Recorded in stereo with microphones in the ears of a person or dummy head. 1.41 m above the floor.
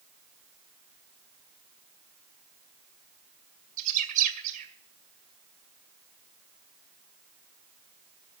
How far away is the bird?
About 2 m.